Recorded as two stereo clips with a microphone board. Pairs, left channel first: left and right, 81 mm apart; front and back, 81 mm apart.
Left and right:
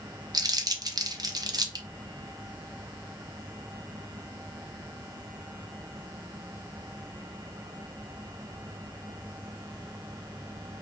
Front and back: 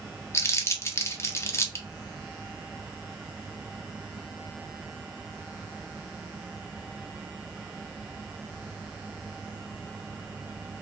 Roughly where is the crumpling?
Ahead right.